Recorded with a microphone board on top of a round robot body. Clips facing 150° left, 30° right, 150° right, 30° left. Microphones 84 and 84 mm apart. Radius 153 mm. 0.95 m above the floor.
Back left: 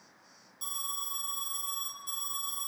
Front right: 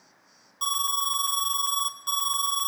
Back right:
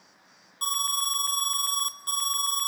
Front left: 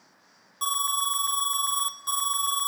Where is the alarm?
35° right, 1.3 m.